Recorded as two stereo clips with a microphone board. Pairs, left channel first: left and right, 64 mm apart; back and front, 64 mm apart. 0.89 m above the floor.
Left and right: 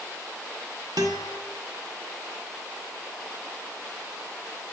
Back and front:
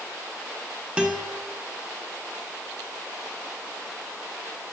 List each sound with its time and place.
1.0 s a guitar: 75° right, 1.0 m